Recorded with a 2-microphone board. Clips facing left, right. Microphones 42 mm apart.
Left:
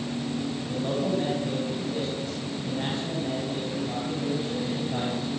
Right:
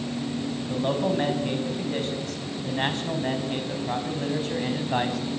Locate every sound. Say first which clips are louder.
0.7 s a man speaking: right 3 dB; 50° right (ahead or behind), 5.5 m; by 5.2 s 80° right, 6 m